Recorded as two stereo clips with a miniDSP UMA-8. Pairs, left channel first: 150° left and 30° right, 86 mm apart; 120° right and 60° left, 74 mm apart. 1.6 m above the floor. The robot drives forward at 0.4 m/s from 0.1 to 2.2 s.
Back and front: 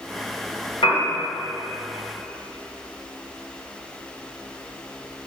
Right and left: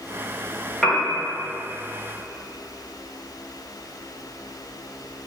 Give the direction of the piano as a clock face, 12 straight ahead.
7 o'clock.